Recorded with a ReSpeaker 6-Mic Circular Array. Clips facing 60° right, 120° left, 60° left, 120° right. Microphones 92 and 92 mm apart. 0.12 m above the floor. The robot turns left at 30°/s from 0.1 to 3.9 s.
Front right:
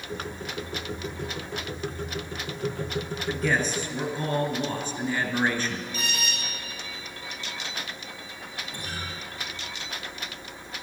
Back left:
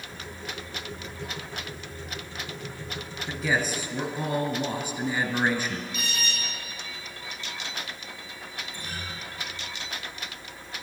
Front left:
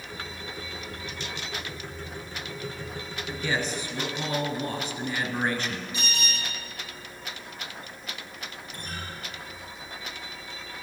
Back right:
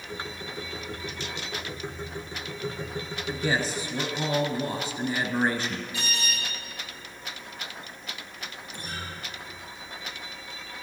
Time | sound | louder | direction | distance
3.3 | a man speaking | front right 1 dB, back right 2 dB | 155° right | 1.3 m
5.9 | an alarm | front right 1 dB, even | 10° right | 5 m
8.7 | a guitar | front right 3 dB, back right 1 dB | 35° right | 3.5 m